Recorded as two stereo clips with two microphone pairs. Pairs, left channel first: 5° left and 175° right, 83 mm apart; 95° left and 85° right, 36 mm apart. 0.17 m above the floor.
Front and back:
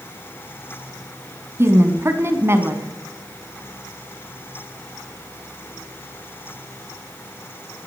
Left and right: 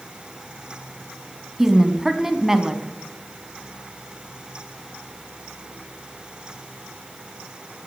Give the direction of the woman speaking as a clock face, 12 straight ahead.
5 o'clock.